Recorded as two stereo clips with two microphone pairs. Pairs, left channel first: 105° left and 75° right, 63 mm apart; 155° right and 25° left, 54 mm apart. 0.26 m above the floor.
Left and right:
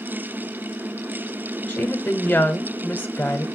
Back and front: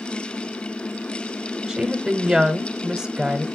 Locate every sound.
1.7 s a woman speaking: 100° left, 1.1 m